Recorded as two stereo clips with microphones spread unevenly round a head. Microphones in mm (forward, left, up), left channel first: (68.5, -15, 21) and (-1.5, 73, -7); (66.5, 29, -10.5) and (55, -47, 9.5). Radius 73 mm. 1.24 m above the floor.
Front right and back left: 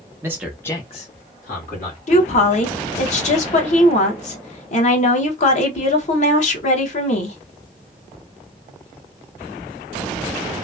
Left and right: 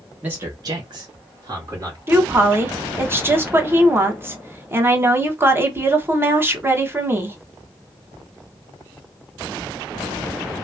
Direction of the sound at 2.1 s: 40° right.